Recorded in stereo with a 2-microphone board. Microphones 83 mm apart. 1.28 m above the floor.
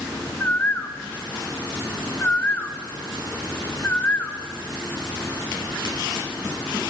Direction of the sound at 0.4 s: 20° left (ahead or behind).